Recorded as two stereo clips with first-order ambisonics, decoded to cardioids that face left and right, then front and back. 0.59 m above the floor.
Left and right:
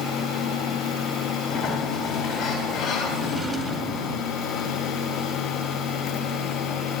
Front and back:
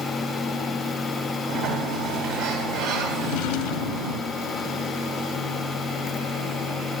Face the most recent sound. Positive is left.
turn(degrees=-15)